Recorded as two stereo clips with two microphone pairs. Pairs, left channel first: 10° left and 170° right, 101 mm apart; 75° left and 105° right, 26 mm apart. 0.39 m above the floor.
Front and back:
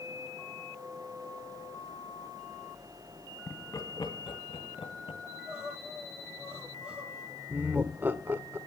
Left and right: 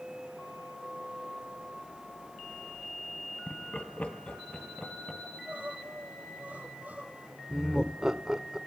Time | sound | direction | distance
3.5 | laughter | 70° left | 2.5 m
5.2 | crying | 85° right | 8 m
7.5 | laughter | 135° right | 1.0 m